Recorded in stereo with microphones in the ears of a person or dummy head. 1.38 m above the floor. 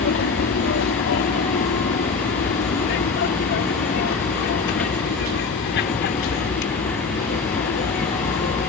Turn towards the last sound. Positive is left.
turn(degrees=55)  # may be behind; listen again after turning